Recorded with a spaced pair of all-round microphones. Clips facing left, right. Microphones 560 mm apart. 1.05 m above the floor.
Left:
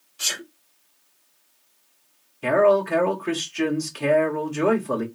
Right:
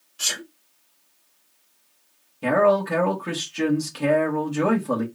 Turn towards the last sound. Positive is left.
turn(degrees=-65)  # may be behind; listen again after turning